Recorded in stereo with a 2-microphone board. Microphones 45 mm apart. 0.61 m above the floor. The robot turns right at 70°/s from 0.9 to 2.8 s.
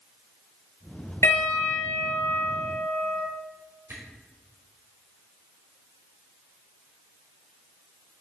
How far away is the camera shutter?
About 5.5 m.